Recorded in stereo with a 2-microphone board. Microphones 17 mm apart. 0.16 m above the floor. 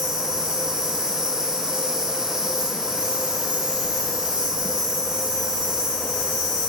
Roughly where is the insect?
Right.